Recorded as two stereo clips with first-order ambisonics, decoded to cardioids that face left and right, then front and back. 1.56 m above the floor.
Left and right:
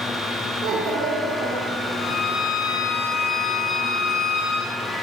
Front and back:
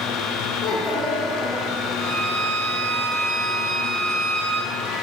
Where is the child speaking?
40° right, 1.1 m; by 2.1 s 90° right, 2.5 m.